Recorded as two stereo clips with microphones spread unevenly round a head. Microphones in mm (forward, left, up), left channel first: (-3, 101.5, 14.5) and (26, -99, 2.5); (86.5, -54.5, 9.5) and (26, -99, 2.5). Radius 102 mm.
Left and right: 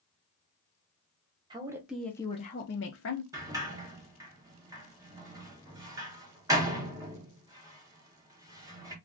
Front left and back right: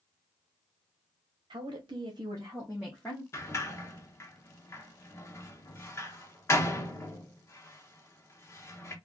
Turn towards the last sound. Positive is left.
turn(degrees=-5)